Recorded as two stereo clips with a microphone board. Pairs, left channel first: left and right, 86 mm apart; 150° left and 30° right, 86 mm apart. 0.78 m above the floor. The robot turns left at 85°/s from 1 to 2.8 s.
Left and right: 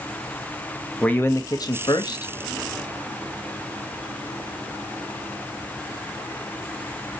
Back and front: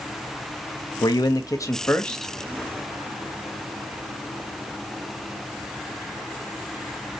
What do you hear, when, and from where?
1.0 s a man speaking: 165° left, 0.5 m; by 2.3 s 55° left, 0.5 m